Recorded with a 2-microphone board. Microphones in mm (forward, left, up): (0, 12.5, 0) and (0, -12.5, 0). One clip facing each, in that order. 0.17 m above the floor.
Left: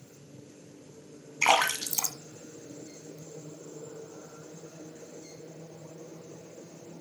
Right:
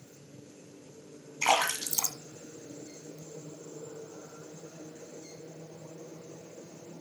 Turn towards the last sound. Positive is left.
turn(degrees=25)  # may be behind; listen again after turning